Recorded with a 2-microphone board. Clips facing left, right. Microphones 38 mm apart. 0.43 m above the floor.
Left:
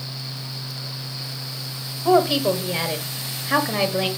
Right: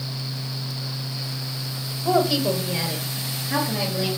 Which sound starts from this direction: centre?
A woman speaking, at 2.0 s.